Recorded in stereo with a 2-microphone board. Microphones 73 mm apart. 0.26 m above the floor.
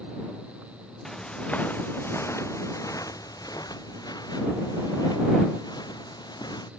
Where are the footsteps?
10° left (ahead or behind); by 6.7 s 85° left.